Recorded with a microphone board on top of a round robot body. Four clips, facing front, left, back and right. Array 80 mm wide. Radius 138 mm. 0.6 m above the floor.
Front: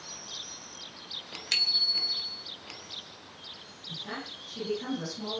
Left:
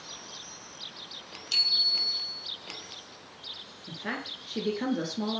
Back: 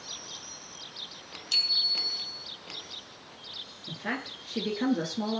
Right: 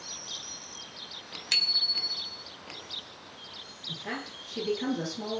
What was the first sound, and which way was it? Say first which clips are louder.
A bicycle bell: right 1 dB, front 1 dB; 45° right.